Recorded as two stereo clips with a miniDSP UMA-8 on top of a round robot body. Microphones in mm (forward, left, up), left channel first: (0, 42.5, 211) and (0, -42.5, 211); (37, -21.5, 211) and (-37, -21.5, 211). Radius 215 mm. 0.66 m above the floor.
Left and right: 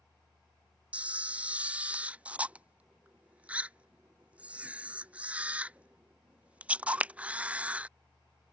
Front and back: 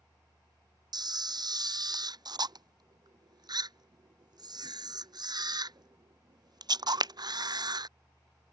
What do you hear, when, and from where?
0.9 s a camera shutter: 165° right